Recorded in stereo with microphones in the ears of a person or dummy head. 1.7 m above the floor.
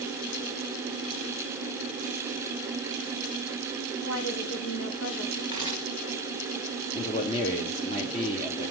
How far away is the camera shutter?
About 4.5 m.